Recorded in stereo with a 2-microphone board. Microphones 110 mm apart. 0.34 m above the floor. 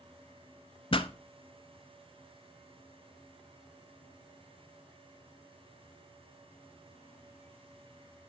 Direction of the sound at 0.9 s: 50° left (ahead or behind).